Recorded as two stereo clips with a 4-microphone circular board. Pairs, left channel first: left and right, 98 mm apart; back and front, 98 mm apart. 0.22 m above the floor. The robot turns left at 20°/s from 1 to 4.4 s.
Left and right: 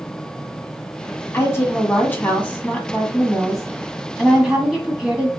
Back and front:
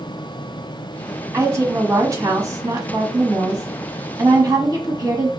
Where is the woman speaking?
45° left, 1.5 m; by 5.3 s 15° right, 1.5 m.